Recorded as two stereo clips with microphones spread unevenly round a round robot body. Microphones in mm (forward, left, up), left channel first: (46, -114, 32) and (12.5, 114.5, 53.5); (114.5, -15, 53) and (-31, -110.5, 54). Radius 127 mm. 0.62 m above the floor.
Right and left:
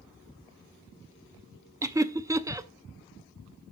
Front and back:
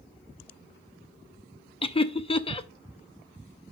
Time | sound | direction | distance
1.8 | laughter | 25° left | 0.6 m